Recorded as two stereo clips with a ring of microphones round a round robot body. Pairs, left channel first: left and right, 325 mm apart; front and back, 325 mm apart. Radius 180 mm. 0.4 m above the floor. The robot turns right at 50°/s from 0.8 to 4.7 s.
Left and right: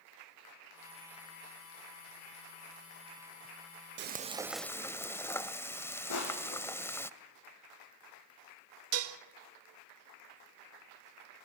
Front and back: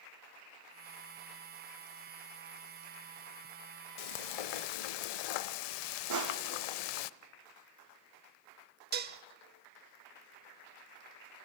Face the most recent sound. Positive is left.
turn(degrees=-125)